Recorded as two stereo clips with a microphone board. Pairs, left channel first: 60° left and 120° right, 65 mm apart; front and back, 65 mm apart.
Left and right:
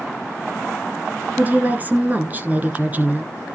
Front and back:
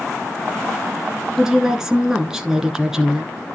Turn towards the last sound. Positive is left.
turn(degrees=-110)